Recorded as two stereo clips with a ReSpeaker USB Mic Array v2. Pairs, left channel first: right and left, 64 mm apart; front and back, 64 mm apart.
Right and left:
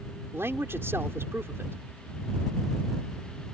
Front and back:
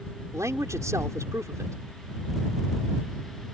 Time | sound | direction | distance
0.3 | a man speaking | 140° left | ?